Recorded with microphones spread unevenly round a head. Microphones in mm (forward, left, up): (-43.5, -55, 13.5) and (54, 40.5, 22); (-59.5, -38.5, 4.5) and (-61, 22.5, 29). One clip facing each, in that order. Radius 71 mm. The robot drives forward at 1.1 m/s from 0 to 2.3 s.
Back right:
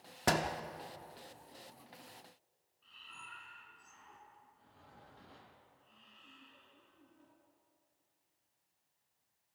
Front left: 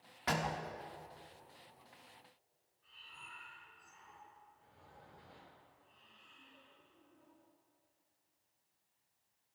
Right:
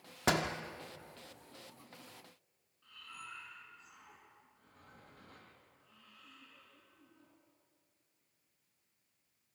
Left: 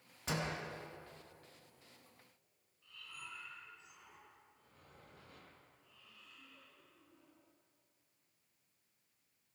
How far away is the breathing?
About 7 m.